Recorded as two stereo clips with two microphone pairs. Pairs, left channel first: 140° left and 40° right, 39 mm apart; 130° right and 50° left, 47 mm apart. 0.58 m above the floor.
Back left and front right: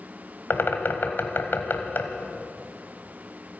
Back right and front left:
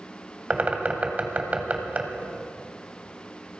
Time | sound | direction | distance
0.5 | a bird | 105° left | 1.3 m